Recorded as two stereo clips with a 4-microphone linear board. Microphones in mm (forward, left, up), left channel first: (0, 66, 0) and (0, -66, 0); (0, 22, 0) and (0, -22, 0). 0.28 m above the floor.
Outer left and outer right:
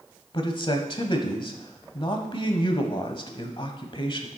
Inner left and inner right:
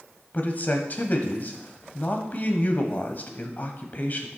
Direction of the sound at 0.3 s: 40° left (ahead or behind).